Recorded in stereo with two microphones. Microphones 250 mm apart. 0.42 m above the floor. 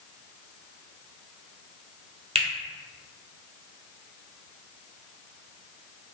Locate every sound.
2.4 s a finger snap: 25° right (ahead or behind), 0.8 m